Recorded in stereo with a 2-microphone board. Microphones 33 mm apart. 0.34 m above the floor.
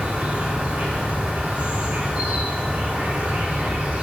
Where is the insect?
65° right (ahead or behind), 3 m.